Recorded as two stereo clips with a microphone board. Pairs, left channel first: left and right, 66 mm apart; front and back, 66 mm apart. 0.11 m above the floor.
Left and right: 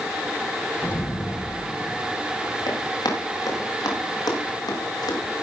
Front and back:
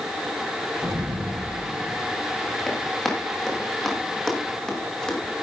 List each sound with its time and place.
0.8 s an explosion: 150° left, 6.5 m
2.7 s running footsteps: 85° left, 9 m; by 5.4 s 80° left, 8 m